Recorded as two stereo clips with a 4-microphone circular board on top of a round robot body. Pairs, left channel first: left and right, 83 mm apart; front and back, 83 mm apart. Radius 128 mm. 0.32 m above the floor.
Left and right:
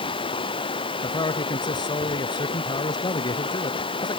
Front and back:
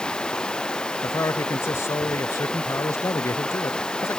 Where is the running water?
80° left.